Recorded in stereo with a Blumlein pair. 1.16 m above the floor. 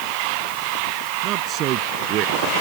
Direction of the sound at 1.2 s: 35° right.